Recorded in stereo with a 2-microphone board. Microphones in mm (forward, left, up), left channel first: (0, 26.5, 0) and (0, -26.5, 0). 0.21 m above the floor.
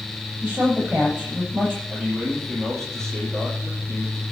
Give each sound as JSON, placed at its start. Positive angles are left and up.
{"t": 0.4, "sound": "a woman speaking", "side_deg": -20, "distance_m": 7.5}
{"t": 1.9, "sound": "a man speaking", "side_deg": 10, "distance_m": 6.0}